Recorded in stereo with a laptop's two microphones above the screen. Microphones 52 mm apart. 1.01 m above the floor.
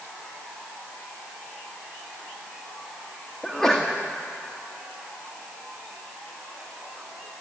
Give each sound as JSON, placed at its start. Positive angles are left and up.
{"t": 3.4, "sound": "a sneeze", "side_deg": 10, "distance_m": 1.6}